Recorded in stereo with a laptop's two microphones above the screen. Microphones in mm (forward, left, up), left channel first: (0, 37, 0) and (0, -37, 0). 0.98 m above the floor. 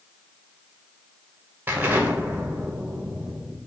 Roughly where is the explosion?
Right.